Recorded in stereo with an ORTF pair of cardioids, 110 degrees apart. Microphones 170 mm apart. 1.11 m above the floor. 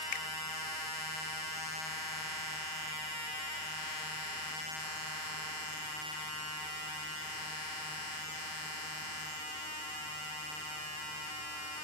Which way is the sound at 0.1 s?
55° left.